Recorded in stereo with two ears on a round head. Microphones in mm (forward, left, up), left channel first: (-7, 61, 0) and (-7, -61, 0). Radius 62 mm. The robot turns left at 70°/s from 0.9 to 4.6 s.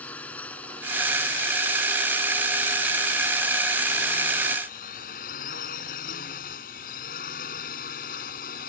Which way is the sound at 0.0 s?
10° left (ahead or behind).